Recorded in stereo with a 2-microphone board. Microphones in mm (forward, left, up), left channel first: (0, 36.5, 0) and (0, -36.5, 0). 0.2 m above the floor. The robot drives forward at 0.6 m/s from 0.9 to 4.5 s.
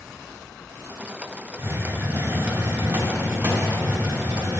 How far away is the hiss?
About 1.7 m.